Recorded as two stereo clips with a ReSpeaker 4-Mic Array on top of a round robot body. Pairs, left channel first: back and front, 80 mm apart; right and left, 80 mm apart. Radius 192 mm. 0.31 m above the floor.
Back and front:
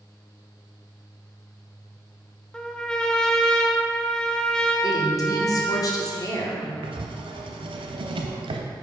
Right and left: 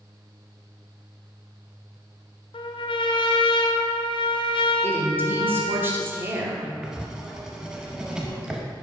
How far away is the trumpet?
About 0.5 m.